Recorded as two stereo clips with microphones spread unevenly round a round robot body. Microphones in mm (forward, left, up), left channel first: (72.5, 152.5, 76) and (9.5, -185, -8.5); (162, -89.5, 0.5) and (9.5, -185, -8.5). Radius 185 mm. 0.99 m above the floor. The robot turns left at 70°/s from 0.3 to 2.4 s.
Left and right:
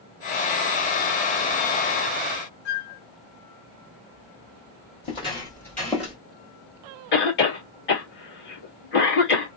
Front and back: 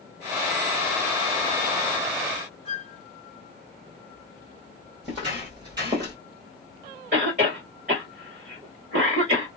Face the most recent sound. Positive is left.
turn(degrees=145)